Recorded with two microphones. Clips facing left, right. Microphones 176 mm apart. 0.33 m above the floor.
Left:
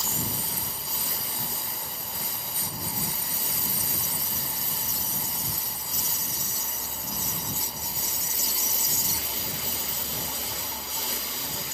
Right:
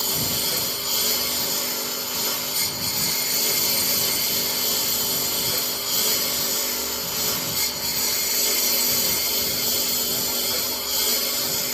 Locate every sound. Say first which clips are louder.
0.0 s a lawn mower: right 5 dB; 75° right (ahead or behind)